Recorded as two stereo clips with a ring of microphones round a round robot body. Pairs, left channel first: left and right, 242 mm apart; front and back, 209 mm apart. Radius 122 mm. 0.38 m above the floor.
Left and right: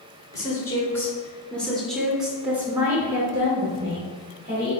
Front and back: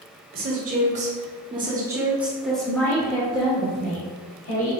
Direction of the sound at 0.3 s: 160° left.